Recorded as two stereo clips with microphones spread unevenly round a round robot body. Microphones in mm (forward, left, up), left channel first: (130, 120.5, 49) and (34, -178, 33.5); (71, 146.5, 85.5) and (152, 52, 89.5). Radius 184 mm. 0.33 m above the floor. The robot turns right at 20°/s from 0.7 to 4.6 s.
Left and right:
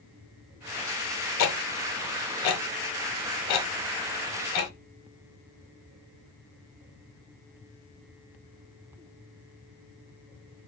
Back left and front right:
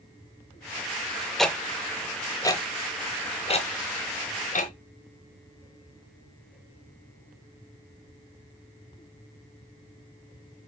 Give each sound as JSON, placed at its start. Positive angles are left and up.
{"t": 1.4, "sound": "ticking", "azimuth_deg": 40, "distance_m": 1.0}